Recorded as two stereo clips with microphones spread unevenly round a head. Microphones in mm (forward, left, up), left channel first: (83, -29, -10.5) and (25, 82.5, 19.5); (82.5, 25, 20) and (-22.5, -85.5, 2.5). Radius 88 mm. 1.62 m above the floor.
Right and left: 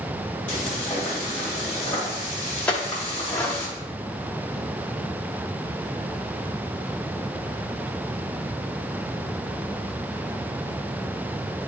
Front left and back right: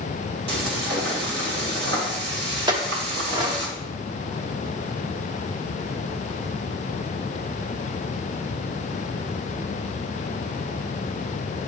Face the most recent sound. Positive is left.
turn(degrees=-160)